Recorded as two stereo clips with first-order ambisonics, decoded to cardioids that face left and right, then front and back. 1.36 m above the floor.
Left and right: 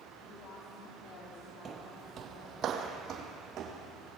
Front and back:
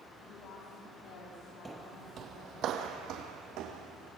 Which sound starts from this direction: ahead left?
A woman speaking, at 0.2 s.